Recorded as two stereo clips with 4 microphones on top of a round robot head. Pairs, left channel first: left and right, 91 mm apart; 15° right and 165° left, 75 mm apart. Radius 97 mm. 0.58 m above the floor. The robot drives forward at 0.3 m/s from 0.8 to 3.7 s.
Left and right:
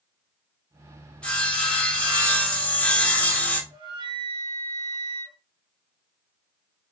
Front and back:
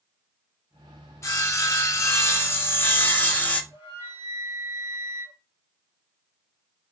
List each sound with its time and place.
1.2 s sawing: 15° left, 1.6 m; by 3.6 s 40° left, 1.2 m
3.7 s a flute: 130° right, 0.9 m